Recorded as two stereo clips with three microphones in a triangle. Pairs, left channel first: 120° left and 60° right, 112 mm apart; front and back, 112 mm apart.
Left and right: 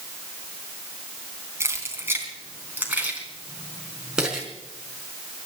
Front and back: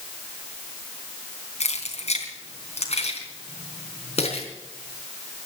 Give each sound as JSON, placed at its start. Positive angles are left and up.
{"t": 1.6, "sound": "keys jangling", "azimuth_deg": 5, "distance_m": 4.0}